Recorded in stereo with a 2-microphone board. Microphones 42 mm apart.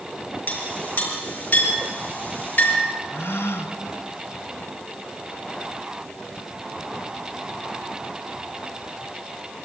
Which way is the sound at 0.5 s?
40° left (ahead or behind).